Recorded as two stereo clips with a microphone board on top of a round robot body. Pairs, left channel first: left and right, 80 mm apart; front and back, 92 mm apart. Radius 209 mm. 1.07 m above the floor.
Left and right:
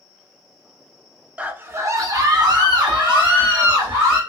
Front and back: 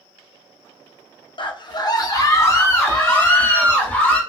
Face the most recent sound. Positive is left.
turn(degrees=-70)